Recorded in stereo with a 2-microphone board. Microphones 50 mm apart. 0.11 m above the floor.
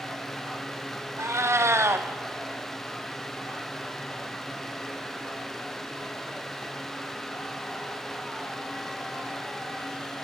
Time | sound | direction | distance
1.2 | a cat meowing | 70° right (ahead or behind) | 0.6 m